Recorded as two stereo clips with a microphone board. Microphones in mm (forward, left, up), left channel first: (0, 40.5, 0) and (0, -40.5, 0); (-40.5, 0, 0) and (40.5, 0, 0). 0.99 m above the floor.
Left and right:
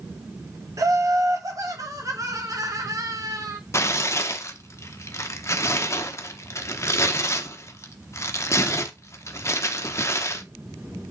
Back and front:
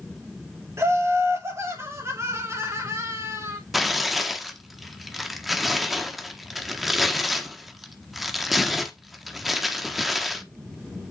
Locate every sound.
0.8 s laughter: 50° right, 3 m
3.7 s tearing paper: 90° left, 1.0 m